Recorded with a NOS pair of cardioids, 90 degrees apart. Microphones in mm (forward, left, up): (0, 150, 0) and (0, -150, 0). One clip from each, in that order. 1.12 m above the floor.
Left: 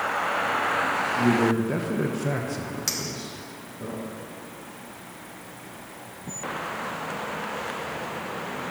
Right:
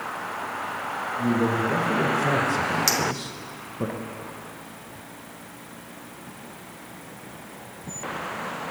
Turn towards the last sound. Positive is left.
turn(degrees=-30)